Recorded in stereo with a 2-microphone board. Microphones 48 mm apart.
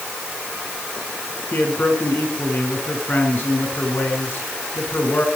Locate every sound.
1.5 s a man speaking: 45° left (ahead or behind), 6.5 m